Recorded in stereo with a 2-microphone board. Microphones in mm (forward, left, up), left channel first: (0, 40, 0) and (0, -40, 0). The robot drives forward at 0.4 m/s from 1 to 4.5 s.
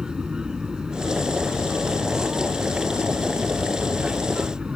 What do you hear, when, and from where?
0.0 s an aircraft: 10° right (ahead or behind)